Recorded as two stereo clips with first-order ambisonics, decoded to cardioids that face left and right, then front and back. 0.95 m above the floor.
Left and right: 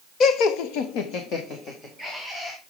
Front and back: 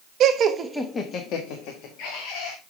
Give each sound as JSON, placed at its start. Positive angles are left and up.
{"t": 0.2, "sound": "laughter", "azimuth_deg": 140, "distance_m": 1.1}